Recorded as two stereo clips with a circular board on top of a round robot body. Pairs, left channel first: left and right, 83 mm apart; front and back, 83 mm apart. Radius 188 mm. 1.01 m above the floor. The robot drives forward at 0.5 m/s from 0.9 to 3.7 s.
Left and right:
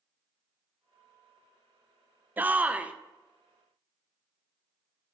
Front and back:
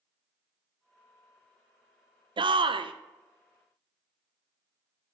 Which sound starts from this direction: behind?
A shout, at 2.4 s.